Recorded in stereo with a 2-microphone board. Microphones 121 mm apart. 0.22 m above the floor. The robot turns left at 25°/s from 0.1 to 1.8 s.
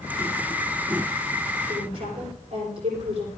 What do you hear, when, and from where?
1.7 s a woman speaking: 45° right (ahead or behind), 9.5 m; by 3.3 s 50° right (ahead or behind), 9.5 m